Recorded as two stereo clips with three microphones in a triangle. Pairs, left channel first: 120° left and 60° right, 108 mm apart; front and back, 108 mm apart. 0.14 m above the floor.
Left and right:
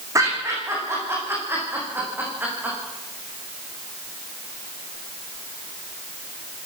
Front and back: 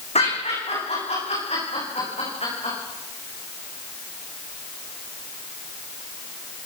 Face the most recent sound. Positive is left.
turn(degrees=15)